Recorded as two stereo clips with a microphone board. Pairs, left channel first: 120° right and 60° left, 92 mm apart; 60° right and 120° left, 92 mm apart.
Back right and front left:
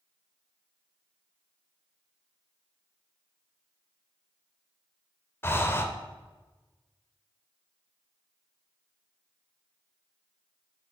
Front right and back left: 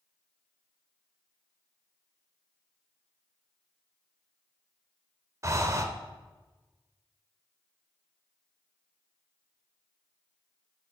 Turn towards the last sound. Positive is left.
turn(degrees=175)